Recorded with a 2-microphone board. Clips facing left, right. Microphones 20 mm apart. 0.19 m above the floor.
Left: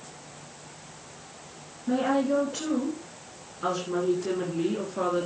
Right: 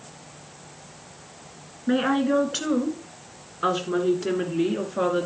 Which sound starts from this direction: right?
A woman speaking, at 1.9 s.